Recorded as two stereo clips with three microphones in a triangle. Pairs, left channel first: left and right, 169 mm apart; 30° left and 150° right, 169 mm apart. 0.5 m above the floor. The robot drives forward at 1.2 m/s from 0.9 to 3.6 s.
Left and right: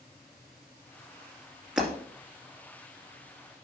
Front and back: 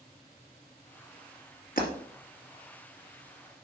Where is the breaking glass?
5° right, 2.5 m.